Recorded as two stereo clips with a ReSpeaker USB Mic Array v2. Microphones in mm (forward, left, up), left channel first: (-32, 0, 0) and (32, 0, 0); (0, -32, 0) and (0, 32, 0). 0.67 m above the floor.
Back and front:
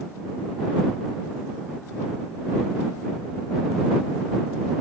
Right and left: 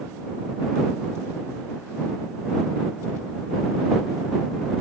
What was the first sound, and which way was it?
Only background noise.